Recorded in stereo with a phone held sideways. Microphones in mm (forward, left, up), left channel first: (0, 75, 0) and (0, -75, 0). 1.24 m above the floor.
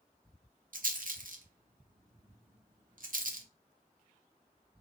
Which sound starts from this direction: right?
A rattle, at 0.7 s.